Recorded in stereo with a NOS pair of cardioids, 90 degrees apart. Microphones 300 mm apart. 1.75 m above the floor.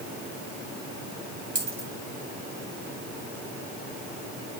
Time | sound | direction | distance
1.6 | a dropped coin | 30° right | 4 m